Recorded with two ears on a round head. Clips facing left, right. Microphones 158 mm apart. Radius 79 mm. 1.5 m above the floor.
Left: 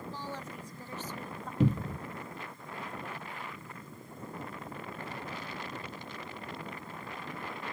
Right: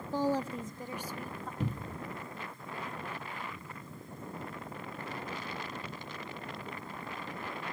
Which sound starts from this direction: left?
A cupboard door, at 1.6 s.